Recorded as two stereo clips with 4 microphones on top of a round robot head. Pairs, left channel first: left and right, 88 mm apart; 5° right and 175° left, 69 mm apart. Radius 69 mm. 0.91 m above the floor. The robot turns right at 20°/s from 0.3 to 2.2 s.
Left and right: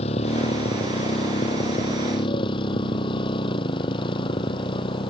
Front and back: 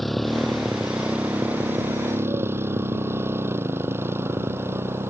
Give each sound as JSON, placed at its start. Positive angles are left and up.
{"t": 0.0, "sound": "a motorcycle", "azimuth_deg": 80}